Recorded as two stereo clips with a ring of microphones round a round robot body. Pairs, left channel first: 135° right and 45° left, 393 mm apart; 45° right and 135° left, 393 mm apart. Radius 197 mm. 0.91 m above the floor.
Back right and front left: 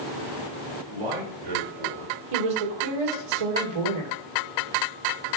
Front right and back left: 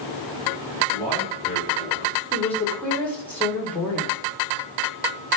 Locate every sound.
0.9 s a man speaking: 40° left, 3.5 m
2.3 s a woman speaking: 40° left, 3 m